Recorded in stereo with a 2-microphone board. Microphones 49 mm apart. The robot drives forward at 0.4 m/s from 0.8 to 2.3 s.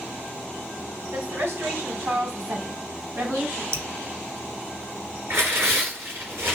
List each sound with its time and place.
1.1 s a woman speaking: 60° right (ahead or behind), 3 m; by 3.6 s 55° right (ahead or behind), 3 m
3.7 s dripping: 70° right (ahead or behind), 0.5 m
5.3 s tearing paper: 65° right (ahead or behind), 2.5 m